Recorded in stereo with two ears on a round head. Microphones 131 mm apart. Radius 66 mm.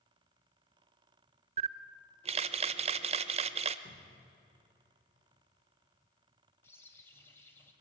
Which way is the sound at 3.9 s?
75° left (ahead or behind).